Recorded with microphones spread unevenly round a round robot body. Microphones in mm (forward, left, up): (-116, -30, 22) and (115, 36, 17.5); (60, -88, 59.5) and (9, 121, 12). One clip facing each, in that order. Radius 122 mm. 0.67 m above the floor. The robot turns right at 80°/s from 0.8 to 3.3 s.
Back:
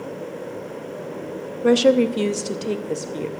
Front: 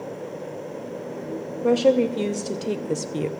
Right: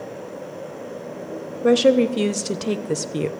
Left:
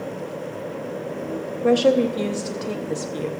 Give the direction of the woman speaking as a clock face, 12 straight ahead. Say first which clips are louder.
Back 3 dB, right 2 dB; 5 o'clock.